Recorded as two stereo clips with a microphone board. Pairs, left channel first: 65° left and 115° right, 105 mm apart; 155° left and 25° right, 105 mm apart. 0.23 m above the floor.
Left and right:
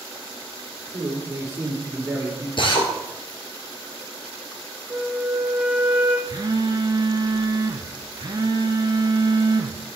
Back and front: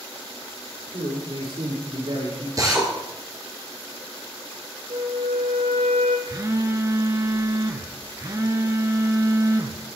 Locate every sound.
0.9 s a man speaking: 50° right, 6 m; by 2.5 s 40° right, 7 m
2.6 s a drill: 30° left, 2 m
4.9 s a flute: 35° right, 2.0 m
6.3 s a phone buzzing: 75° right, 0.6 m